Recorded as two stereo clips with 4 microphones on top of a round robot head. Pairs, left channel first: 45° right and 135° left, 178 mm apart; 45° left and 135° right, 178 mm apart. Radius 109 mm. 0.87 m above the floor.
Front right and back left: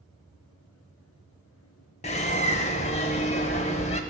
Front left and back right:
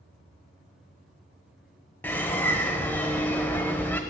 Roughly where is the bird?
Ahead right.